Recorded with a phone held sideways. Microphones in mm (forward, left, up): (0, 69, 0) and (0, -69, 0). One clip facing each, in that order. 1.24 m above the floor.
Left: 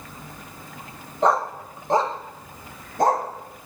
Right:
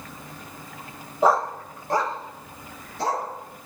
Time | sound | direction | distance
1.2 | a dog barking | 5° right (ahead or behind) | 1.4 m